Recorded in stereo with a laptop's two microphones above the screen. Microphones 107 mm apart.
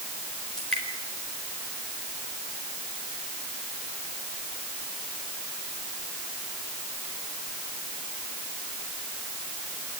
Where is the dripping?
5° left (ahead or behind), 4 m.